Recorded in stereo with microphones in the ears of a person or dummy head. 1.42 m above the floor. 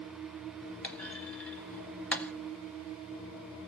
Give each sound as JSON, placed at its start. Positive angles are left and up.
{"t": 0.8, "sound": "a clunk", "side_deg": 5, "distance_m": 0.7}